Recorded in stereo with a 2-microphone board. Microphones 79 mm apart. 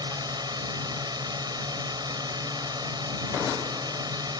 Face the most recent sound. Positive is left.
turn(degrees=-65)  # may be behind; listen again after turning